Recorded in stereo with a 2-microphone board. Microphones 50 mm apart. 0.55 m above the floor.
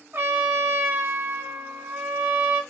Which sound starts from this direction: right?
A trumpet, at 0.1 s.